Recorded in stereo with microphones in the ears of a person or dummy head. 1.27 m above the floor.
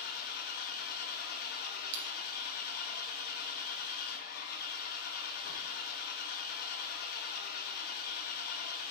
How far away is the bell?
About 1.9 m.